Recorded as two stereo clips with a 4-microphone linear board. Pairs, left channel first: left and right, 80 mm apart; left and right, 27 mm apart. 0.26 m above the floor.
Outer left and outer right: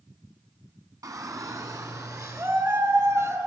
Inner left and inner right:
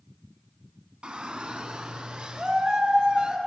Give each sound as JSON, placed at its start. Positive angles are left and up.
{"t": 1.0, "sound": "a shout", "side_deg": -45, "distance_m": 1.9}